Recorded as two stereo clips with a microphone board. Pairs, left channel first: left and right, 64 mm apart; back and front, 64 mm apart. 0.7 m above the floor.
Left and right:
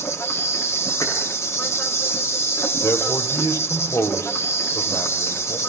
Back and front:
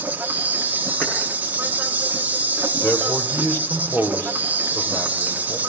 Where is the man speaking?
125° left, 3.5 m.